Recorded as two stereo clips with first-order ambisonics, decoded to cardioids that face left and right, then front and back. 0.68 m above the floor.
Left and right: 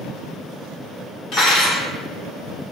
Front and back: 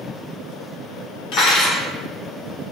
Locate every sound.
1.3 s cutlery clinking: 25° left, 1.2 m